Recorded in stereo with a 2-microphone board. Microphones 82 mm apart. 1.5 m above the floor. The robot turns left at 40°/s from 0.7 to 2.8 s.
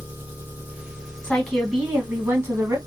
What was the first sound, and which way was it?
An engine running, 25° right.